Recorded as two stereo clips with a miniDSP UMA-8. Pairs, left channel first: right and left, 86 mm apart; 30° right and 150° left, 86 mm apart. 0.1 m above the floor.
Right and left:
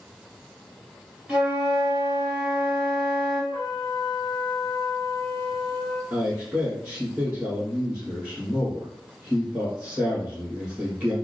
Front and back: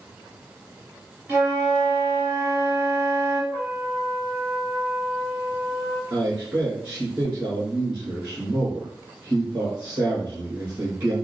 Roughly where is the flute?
Behind left.